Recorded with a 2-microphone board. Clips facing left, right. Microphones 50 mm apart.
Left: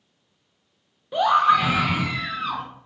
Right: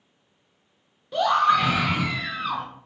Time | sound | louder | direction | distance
1.1 | a scream | left 2 dB | 20° left (ahead or behind) | 0.6 m